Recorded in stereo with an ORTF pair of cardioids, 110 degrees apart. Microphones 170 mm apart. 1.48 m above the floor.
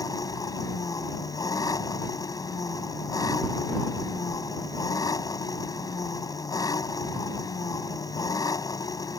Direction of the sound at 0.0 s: 20° left.